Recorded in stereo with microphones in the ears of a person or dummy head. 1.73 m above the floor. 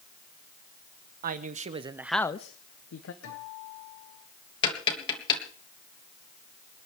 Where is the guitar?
85° left, 7.5 m.